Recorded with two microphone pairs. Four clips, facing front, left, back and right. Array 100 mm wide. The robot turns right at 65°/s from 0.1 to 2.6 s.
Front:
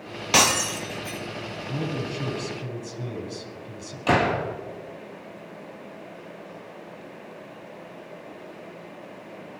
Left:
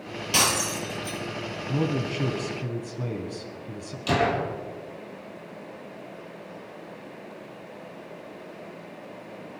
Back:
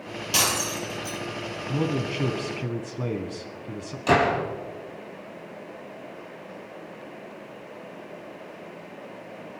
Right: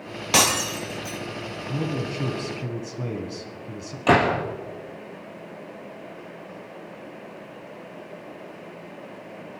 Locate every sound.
0.3 s breaking glass: 50° right, 1.8 m; by 1.2 s 5° left, 1.8 m
1.7 s a man speaking: 130° left, 1.8 m; by 4.0 s 170° right, 1.8 m
4.1 s a gunshot: 85° right, 5.5 m